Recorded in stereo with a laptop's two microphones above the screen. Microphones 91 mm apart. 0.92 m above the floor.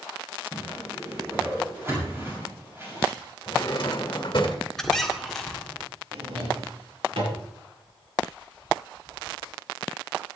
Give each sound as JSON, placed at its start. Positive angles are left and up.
{"t": 0.5, "sound": "a whoosh", "side_deg": -25, "distance_m": 6.5}
{"t": 3.5, "sound": "a drawer", "side_deg": 50, "distance_m": 1.8}
{"t": 4.8, "sound": "a squeak", "side_deg": 5, "distance_m": 1.6}
{"t": 6.1, "sound": "a drawer", "side_deg": -80, "distance_m": 6.5}